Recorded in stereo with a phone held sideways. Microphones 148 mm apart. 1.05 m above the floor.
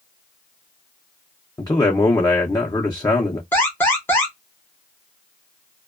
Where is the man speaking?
25° left (ahead or behind), 0.5 m.